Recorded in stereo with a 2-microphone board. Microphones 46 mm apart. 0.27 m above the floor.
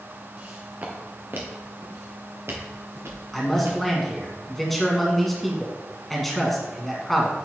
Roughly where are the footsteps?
Right.